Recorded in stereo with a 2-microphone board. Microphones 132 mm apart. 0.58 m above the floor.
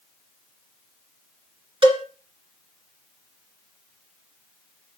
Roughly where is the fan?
No fan in this recording.